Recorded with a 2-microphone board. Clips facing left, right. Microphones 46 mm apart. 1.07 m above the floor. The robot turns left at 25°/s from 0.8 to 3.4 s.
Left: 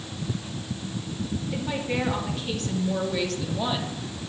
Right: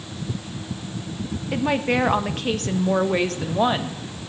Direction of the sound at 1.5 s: 85° right.